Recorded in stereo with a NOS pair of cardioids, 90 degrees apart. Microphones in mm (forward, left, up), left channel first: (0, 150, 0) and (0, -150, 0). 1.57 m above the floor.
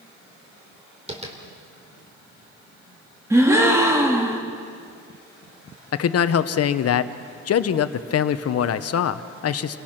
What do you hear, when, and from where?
1.1 s tapping: 20° right, 3.5 m
3.3 s a gasp: 10° right, 2.5 m
5.9 s a man speaking: 55° left, 1.1 m